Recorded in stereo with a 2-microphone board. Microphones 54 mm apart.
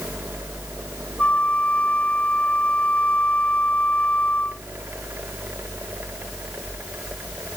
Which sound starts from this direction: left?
A flute, at 1.2 s.